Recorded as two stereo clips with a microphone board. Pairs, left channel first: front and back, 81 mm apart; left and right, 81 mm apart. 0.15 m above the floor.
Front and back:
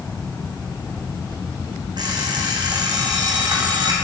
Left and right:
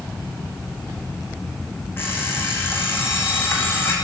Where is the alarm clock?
150° left, 4.5 m.